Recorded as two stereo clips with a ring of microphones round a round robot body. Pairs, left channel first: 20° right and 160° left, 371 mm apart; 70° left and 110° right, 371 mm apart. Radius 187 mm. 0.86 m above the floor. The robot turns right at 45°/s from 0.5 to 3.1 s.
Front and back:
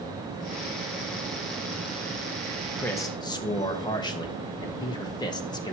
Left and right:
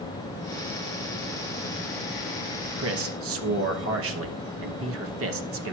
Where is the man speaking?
110° right, 0.9 m; by 5.8 s 95° right, 0.9 m.